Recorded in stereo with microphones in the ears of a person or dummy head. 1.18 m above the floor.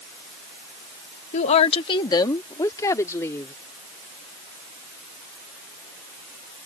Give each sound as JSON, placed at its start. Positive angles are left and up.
{"t": 1.3, "sound": "a woman speaking", "side_deg": 40}